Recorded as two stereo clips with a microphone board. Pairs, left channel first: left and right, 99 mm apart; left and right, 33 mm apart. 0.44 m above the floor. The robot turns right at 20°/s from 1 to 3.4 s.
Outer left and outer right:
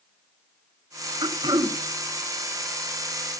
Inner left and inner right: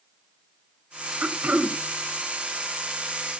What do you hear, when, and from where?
1.2 s throat clearing: 55° right (ahead or behind), 1.3 m; by 1.8 s 45° right (ahead or behind), 1.3 m